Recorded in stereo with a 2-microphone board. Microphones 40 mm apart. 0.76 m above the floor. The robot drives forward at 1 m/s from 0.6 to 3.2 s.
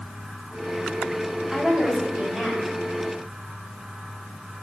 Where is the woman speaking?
15° right (ahead or behind), 4 m; by 2.7 s 10° right (ahead or behind), 5 m.